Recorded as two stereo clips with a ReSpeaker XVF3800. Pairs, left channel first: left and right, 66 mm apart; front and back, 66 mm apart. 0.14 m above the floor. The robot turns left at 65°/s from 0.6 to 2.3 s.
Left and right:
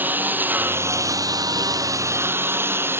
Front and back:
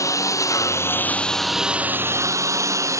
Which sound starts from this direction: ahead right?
A lawn mower, at 0.0 s.